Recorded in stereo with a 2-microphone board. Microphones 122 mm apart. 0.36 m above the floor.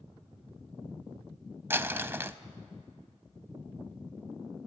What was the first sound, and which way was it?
Crumpling, 20° right (ahead or behind).